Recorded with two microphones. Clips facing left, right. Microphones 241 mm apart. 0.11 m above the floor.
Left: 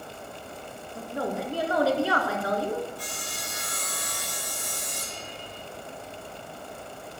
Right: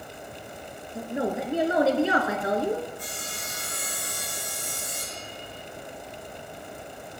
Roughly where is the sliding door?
No sliding door in this recording.